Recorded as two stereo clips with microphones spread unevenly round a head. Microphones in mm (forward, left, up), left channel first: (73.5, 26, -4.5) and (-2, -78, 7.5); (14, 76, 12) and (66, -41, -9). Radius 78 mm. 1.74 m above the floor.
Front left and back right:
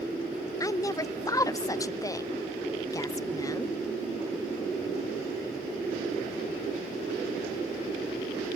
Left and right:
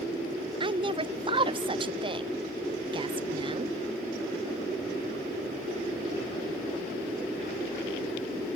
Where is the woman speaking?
10° right, 0.7 m.